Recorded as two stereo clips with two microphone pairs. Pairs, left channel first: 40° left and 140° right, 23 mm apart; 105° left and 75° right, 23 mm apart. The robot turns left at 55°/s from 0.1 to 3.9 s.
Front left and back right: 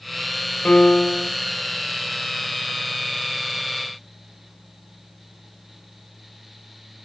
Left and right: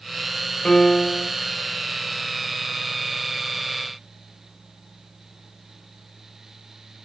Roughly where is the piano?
Ahead left.